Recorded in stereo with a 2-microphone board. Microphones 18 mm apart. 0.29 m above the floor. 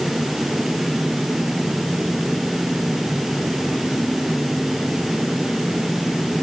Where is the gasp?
I don't hear a gasp.